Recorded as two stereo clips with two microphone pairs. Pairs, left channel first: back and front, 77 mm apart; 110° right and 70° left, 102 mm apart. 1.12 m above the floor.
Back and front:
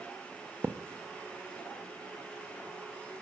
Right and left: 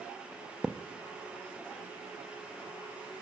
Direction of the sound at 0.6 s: 5° right.